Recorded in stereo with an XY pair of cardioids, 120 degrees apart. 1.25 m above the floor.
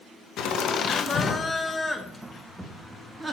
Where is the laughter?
70° left, 0.9 m; by 3.4 s 15° right, 1.7 m.